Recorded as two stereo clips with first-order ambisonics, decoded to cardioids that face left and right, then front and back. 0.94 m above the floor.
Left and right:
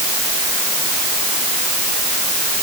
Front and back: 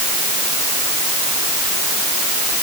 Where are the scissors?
I don't hear scissors.